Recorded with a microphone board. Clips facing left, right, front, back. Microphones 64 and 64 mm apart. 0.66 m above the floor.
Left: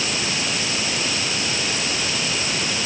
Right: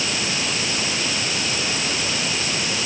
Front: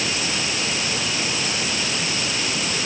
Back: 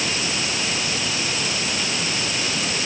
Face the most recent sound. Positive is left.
No sound to turn to.